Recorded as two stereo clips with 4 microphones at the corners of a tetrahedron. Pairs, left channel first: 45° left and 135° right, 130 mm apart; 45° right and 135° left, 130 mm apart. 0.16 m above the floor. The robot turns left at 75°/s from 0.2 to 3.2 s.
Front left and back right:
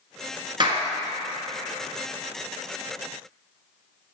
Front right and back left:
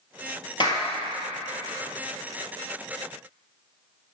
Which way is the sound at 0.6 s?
90° right.